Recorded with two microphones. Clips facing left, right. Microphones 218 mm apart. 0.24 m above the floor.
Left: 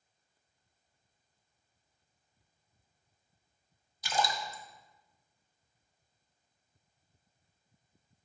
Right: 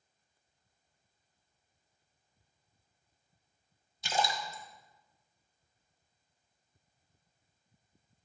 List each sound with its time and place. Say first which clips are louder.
4.0 s a splash: even; 25° right (ahead or behind), 1.0 m